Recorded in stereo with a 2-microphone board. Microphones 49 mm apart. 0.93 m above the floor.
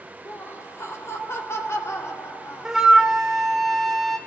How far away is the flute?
About 1.4 m.